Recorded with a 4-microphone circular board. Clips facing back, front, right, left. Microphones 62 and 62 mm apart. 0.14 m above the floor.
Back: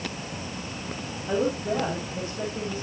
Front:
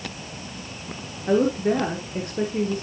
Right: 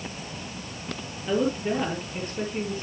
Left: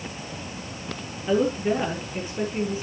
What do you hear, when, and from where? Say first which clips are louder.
1.3 s a woman speaking: front 6 dB, left 3 dB; 10° left, 3.5 m